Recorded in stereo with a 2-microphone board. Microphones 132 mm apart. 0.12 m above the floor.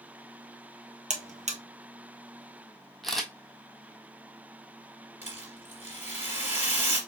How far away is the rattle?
About 3 m.